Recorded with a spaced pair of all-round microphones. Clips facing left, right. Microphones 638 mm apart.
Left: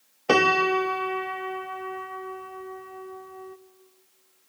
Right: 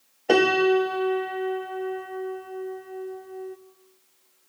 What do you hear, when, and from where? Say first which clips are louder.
0.3 s a piano: right 4 dB; 35° left (ahead or behind), 0.7 m